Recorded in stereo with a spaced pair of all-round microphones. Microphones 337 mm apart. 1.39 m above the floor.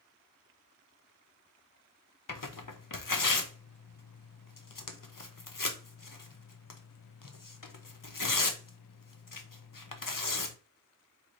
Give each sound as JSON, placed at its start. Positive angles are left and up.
{"t": 2.3, "sound": "tearing paper", "side_deg": 70, "distance_m": 0.7}